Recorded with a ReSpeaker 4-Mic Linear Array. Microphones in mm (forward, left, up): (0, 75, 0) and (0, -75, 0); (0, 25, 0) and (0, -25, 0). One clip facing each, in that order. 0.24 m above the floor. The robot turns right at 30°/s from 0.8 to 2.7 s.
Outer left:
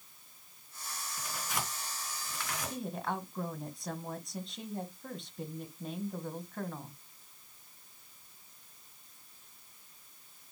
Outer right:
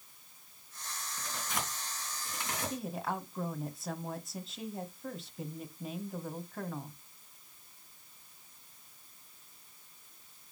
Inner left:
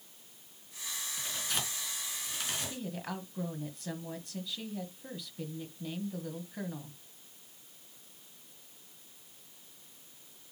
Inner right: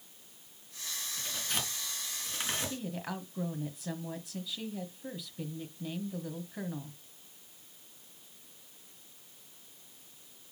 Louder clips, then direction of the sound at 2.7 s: Outer left 2 dB, inner right 1 dB; centre (ahead or behind).